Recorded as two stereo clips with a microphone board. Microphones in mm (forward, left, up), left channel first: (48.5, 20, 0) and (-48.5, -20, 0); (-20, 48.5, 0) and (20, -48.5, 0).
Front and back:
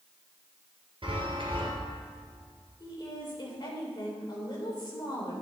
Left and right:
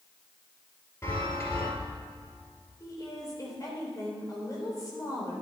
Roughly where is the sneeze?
No sneeze in this recording.